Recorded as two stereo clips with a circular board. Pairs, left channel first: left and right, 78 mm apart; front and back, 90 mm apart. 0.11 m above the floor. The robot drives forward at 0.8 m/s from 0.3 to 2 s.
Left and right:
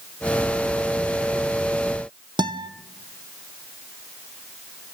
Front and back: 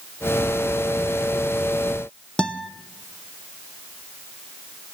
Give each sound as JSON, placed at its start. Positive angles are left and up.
{"t": 2.4, "sound": "a guitar", "azimuth_deg": -80, "distance_m": 0.9}